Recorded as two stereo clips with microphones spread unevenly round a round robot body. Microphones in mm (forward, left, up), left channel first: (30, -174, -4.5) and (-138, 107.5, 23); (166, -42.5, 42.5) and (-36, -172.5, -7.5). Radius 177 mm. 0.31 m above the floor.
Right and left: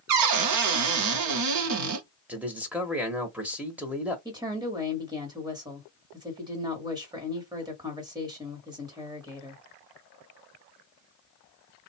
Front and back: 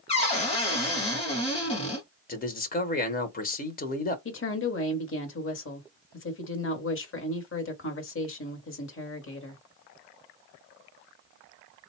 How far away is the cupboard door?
About 0.7 m.